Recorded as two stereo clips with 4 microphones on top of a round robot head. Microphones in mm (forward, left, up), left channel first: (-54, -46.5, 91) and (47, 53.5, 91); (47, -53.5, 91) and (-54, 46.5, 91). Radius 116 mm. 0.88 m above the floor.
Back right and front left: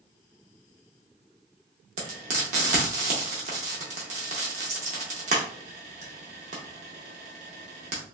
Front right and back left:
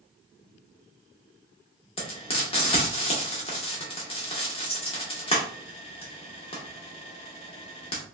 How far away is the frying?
About 0.6 m.